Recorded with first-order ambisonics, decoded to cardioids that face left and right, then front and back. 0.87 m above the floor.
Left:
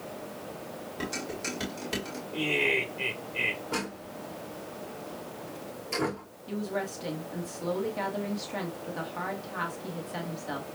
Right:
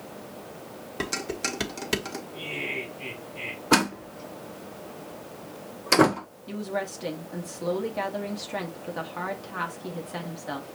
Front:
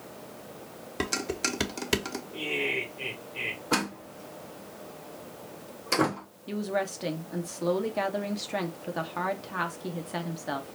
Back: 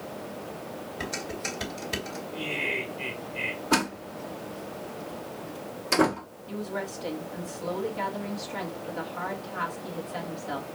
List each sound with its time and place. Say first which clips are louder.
1.0 s dishes clattering: right 5 dB, front 4 dB; 30° right, 1.1 m
2.3 s laughter: left 7 dB, even; 75° left, 2.5 m
3.7 s a door slam: right 11 dB, back 4 dB; 95° right, 0.7 m
6.5 s a woman speaking: right 2 dB, front 4 dB; 20° right, 1.0 m